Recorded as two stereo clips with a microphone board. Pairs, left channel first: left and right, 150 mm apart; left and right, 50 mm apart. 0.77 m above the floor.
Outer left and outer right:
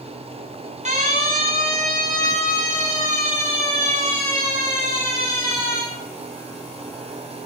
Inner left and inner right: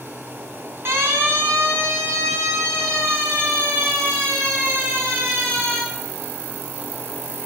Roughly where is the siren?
Right.